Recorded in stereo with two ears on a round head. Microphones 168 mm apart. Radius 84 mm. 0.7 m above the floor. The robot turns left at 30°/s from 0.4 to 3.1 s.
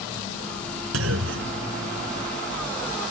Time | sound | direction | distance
0.9 | a clunk | 80° right | ?